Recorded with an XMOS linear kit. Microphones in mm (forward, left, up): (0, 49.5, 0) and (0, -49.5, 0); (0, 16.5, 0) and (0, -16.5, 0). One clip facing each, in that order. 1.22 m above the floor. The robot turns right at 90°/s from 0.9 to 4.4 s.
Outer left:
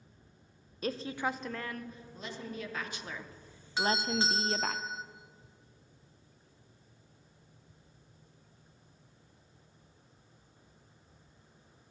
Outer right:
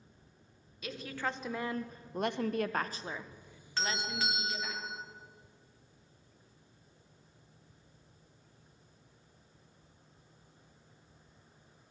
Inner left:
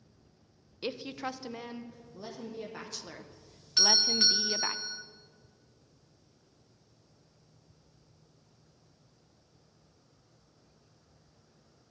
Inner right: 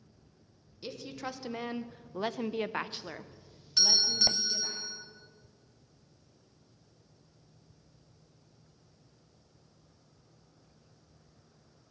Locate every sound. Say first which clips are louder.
0.8 s a woman speaking: outer left 4 dB, inner left 4 dB; 135° left, 0.5 m; by 4.8 s 90° left, 0.5 m
3.8 s a doorbell: outer left 5 dB, inner left 2 dB; 25° left, 0.8 m; by 5.0 s 80° left, 0.8 m